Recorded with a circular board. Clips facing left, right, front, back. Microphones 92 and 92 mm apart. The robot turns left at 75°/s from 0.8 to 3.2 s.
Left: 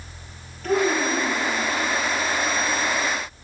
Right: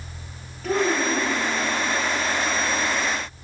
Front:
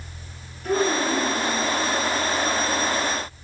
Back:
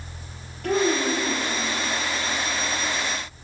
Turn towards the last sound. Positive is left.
turn(degrees=5)